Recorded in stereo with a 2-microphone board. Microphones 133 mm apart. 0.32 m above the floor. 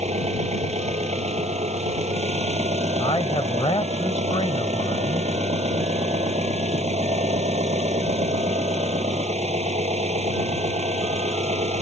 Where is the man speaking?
40° left (ahead or behind).